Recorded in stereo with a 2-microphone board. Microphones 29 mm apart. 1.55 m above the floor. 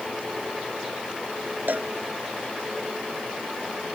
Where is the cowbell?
70° right (ahead or behind).